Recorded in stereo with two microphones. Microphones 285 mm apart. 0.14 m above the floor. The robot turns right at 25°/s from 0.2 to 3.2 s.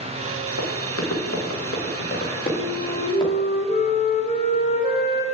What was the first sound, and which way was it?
Running footsteps, 65° left (ahead or behind).